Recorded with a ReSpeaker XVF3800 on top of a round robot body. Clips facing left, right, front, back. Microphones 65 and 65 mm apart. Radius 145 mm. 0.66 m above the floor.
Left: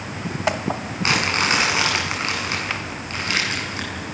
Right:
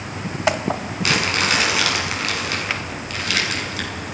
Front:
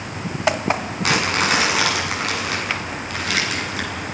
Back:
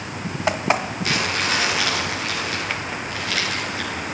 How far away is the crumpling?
About 7.5 m.